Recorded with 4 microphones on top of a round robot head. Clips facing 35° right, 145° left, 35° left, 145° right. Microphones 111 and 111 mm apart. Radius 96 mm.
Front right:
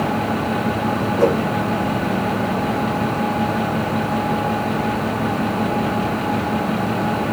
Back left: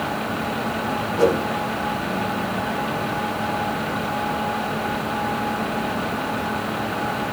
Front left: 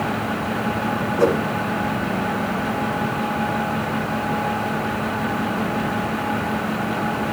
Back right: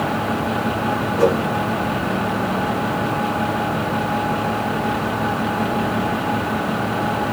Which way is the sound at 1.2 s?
140° left.